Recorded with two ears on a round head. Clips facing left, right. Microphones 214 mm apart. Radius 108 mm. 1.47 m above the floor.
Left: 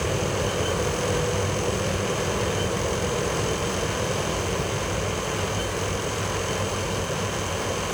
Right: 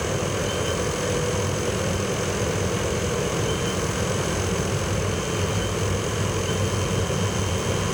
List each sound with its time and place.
0.0 s an aircraft: centre (ahead or behind); by 7.9 s 30° right (ahead or behind)